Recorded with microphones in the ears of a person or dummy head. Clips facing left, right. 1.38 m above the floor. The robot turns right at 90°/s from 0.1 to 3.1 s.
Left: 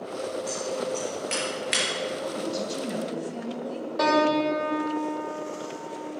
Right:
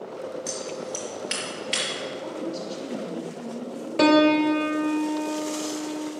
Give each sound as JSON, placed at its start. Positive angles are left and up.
{"t": 0.5, "sound": "scissors", "side_deg": -70, "distance_m": 3.5}
{"t": 2.2, "sound": "a woman speaking", "azimuth_deg": 20, "distance_m": 2.5}
{"t": 4.0, "sound": "a piano", "side_deg": -40, "distance_m": 0.8}